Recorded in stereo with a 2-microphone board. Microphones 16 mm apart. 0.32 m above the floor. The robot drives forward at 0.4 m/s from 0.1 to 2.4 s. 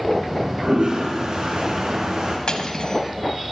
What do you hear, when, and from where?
0.2 s a toilet flushing: 75° right (ahead or behind), 2.5 m; by 2.4 s 65° right (ahead or behind), 3 m
2.5 s cutlery clinking: 60° left (ahead or behind), 1.2 m